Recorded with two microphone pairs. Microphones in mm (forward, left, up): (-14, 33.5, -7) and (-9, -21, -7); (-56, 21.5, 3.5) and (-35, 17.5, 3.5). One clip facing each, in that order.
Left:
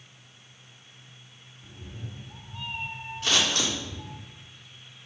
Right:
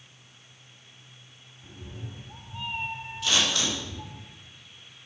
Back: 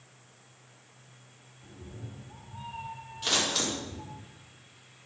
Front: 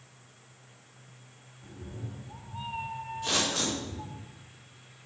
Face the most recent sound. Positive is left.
turn(degrees=135)